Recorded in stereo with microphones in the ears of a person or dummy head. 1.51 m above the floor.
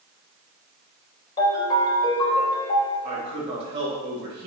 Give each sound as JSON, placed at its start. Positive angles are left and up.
{"t": 1.4, "sound": "a ringtone", "side_deg": 20, "distance_m": 3.5}
{"t": 3.0, "sound": "a man speaking", "side_deg": -35, "distance_m": 2.5}